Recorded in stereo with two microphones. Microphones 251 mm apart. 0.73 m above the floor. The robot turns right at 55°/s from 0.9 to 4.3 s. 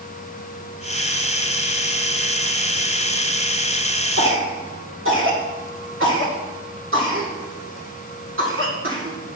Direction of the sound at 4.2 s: 55° right (ahead or behind).